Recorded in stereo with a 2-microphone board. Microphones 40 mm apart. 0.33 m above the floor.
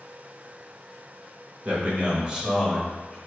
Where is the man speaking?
45° right (ahead or behind), 1.2 m; by 3.2 s centre (ahead or behind), 1.0 m.